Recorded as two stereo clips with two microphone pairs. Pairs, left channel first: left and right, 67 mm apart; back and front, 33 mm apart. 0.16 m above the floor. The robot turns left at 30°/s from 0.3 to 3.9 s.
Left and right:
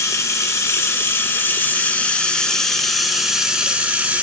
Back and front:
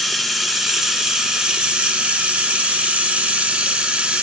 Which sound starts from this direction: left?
Running water, at 0.0 s.